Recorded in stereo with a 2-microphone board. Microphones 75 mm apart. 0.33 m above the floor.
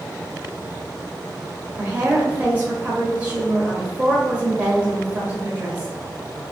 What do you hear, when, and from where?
1.8 s a woman speaking: 20° right (ahead or behind), 1.6 m